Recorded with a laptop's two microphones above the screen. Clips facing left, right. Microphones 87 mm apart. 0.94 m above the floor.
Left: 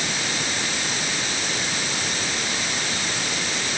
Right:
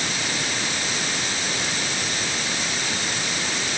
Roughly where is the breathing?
No breathing in this recording.